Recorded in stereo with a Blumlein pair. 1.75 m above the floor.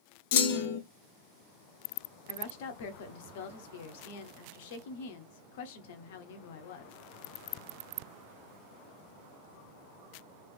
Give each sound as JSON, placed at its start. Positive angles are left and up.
{"t": 0.3, "sound": "a clunk", "azimuth_deg": 50, "distance_m": 0.6}
{"t": 2.3, "sound": "a woman speaking", "azimuth_deg": 55, "distance_m": 0.9}